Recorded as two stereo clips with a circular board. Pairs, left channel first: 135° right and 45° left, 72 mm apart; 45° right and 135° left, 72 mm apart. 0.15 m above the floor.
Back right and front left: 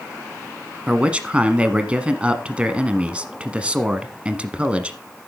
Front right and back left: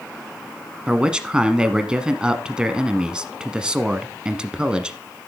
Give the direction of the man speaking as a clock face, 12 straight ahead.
9 o'clock.